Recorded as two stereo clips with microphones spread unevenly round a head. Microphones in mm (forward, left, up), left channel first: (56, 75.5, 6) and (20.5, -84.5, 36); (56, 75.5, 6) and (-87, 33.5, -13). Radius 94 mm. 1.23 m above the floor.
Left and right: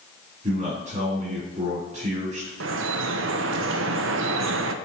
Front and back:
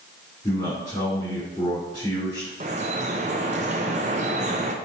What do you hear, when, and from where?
0.4 s a man speaking: 55° right, 3 m
2.6 s dripping: 105° right, 0.6 m